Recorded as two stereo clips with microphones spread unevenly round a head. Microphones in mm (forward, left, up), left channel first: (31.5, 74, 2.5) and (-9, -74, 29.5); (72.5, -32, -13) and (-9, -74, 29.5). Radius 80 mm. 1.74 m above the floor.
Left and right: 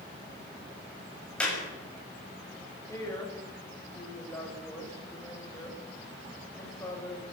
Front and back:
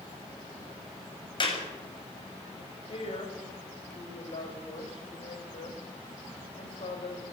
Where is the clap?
10° right, 7 m.